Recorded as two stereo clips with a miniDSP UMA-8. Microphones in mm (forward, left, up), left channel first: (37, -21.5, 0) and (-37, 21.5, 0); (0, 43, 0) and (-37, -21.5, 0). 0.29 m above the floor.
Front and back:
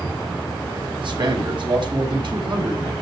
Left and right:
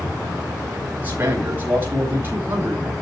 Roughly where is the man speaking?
Behind.